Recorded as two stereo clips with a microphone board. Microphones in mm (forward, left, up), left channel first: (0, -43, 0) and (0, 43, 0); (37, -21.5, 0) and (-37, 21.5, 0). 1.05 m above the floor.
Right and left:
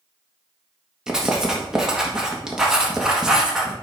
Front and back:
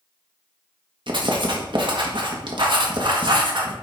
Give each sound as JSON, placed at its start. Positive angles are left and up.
{"t": 1.1, "sound": "writing", "azimuth_deg": 175, "distance_m": 1.5}